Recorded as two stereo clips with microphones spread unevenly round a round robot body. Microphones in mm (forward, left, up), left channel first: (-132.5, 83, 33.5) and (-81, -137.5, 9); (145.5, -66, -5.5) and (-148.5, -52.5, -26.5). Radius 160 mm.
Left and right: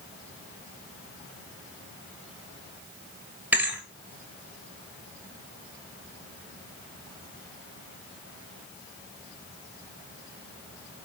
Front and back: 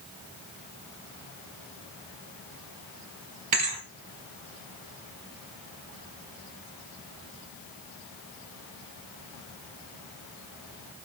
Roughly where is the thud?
Behind.